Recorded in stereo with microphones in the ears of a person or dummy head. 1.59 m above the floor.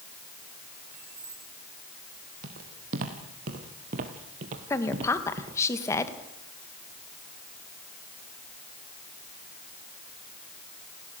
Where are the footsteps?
50° right (ahead or behind), 3 m; by 5.6 s 20° right (ahead or behind), 1.7 m.